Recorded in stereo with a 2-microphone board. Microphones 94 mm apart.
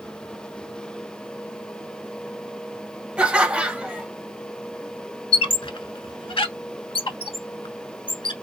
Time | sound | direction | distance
3.2 | laughter | 10° right (ahead or behind) | 1.0 m
5.3 | a squeak | 65° left (ahead or behind) | 0.5 m